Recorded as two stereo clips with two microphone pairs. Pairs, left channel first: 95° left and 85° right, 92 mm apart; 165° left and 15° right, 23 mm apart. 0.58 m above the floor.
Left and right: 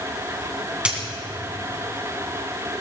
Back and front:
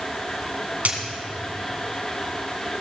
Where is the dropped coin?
5° right, 2.5 m.